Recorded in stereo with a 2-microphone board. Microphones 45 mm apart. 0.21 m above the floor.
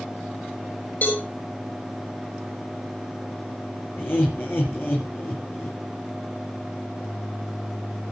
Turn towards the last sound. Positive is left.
turn(degrees=55)  # may be behind; listen again after turning